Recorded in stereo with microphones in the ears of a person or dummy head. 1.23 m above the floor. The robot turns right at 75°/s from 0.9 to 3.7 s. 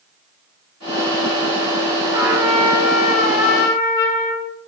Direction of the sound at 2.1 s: 20° right.